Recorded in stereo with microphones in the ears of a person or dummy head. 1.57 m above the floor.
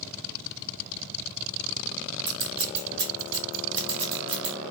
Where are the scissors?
25° right (ahead or behind), 0.9 m.